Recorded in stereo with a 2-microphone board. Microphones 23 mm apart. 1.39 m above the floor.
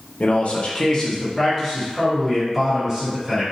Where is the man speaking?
65° left (ahead or behind), 0.6 m; by 3.4 s 10° right (ahead or behind), 1.7 m.